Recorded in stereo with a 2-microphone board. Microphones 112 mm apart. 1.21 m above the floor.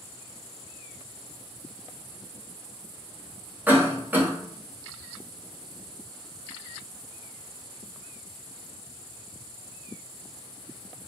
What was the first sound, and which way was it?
A cough, 15° right (ahead or behind).